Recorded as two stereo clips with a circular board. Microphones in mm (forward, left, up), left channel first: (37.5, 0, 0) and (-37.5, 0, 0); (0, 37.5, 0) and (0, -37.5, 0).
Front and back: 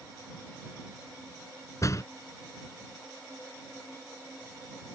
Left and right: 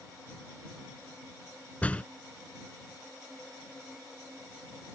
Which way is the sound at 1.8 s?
25° left.